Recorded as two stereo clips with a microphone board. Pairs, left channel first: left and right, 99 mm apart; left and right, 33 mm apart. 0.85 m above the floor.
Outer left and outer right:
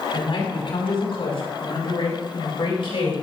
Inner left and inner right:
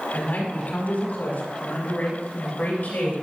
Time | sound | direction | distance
0.1 | a man speaking | 60° left (ahead or behind) | 4.5 m